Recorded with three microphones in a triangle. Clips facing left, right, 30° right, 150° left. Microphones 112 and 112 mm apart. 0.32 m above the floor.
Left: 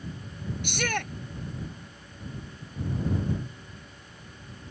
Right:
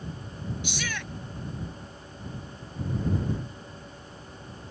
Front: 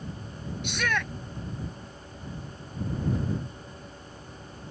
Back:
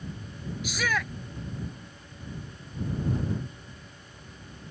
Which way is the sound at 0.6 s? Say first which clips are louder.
Left 9 dB, even; 65° left.